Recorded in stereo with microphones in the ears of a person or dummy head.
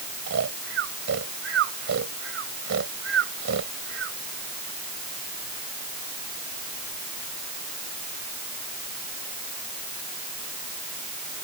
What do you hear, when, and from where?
0.3 s snoring: 60° right (ahead or behind)